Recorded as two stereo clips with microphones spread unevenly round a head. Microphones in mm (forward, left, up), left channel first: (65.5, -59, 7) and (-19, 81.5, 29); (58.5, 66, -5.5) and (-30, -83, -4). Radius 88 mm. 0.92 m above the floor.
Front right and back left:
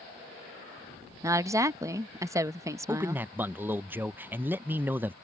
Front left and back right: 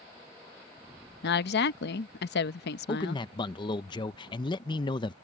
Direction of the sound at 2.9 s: 40° left.